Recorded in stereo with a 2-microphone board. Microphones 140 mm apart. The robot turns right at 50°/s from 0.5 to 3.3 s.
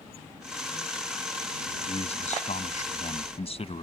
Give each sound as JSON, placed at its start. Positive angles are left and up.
{"t": 1.9, "sound": "a man speaking", "azimuth_deg": 50}